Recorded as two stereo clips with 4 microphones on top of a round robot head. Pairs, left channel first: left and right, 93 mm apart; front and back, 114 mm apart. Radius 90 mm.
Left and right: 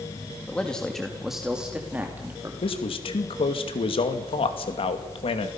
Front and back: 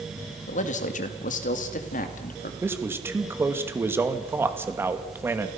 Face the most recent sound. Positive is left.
turn(degrees=110)